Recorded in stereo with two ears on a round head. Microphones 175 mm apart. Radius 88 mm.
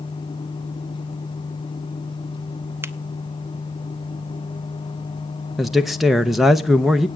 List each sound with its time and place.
2.8 s a finger snap: 15° right (ahead or behind), 0.7 m
5.6 s a man speaking: centre (ahead or behind), 0.6 m